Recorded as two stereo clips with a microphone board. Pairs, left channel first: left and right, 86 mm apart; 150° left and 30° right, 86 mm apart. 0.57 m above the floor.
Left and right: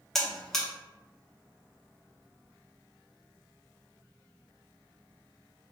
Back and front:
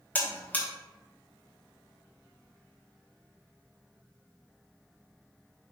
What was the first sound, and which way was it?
A buzzer, 165° left.